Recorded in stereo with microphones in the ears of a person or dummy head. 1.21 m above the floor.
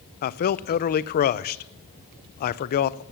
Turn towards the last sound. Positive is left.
turn(degrees=45)  # may be behind; listen again after turning